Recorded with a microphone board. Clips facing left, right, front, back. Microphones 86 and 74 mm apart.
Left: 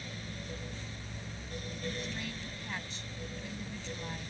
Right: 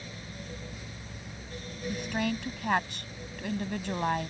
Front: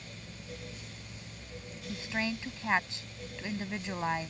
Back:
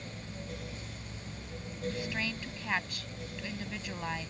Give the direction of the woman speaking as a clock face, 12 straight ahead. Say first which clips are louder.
Right 14 dB, front 3 dB; 2 o'clock.